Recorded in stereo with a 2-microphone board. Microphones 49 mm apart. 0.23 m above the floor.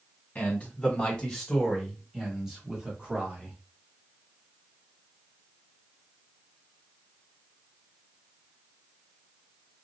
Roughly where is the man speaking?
Left.